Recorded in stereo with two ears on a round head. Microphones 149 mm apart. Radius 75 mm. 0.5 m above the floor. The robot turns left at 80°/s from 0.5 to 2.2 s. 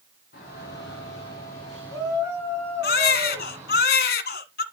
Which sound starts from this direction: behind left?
A shout, at 0.3 s.